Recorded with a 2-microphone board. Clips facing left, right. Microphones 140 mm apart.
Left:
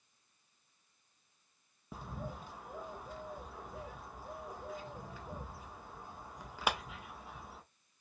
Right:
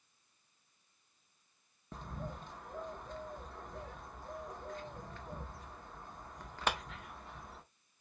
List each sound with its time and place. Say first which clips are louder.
1.9 s a bird: even; 10° left (ahead or behind), 0.7 m